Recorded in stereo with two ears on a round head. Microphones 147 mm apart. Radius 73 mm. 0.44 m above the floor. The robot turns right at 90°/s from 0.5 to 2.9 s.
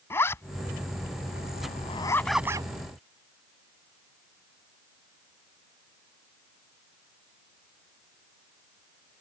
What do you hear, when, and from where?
0.1 s a zipper: 15° left (ahead or behind); by 2.7 s 30° right (ahead or behind)